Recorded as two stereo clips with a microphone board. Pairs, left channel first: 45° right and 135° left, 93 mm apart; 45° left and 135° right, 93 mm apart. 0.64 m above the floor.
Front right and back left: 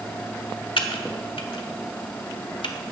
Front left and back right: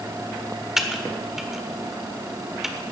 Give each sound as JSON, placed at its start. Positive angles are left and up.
{"t": 0.8, "sound": "typing on a keyboard", "azimuth_deg": -50, "distance_m": 1.3}